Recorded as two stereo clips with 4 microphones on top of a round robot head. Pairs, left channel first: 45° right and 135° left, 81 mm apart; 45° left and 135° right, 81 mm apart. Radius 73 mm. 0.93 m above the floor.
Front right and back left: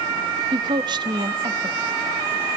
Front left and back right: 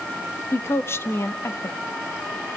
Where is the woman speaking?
105° left, 1.1 m.